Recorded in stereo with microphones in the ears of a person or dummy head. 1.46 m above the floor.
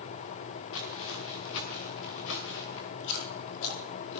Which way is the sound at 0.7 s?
65° left (ahead or behind).